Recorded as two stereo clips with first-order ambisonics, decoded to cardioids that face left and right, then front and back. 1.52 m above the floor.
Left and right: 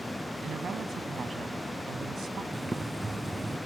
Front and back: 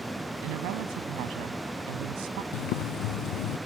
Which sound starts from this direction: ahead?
Boiling, at 2.5 s.